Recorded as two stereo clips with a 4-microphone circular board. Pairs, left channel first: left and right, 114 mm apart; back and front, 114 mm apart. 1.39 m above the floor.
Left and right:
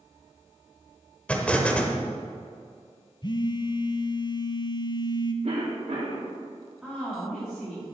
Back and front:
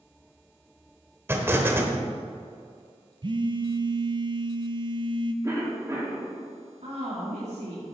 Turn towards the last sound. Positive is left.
turn(degrees=-5)